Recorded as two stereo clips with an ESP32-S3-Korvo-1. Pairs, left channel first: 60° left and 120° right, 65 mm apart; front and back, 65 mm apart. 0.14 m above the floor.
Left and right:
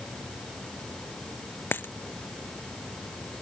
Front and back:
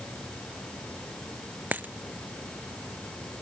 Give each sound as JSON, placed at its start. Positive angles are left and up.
{"t": 1.7, "sound": "a dropped coin", "azimuth_deg": 120}